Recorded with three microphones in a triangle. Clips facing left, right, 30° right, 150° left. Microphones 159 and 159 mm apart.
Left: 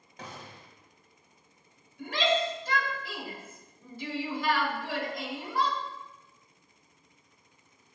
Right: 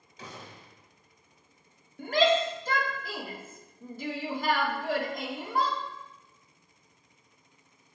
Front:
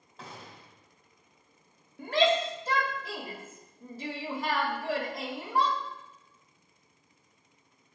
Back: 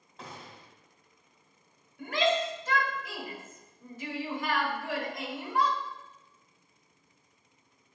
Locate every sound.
0.2 s a gunshot: 60° left, 1.4 m
2.0 s a shout: 75° right, 1.1 m